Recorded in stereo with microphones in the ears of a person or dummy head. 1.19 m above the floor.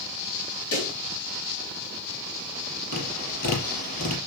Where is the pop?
40° left (ahead or behind), 7.5 m.